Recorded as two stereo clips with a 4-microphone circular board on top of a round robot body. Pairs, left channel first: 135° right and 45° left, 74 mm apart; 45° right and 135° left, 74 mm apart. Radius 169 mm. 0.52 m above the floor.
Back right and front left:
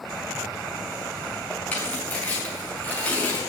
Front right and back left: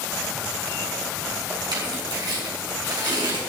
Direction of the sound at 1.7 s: 155° left.